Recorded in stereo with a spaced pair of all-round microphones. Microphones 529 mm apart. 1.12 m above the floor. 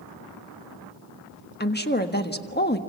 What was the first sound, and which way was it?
A woman speaking, 20° left (ahead or behind).